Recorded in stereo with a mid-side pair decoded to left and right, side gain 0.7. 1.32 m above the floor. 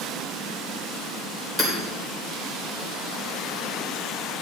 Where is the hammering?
10° left, 3 m.